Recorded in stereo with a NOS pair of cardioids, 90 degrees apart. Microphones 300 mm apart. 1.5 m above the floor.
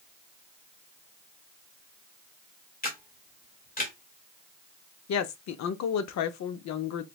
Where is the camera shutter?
30° left, 1.6 m.